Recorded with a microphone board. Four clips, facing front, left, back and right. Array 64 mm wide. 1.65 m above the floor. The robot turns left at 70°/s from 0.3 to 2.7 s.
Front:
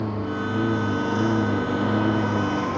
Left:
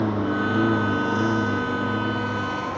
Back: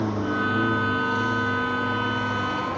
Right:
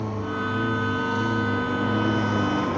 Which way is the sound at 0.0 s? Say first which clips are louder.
Left 5 dB, back 2 dB; 110° left.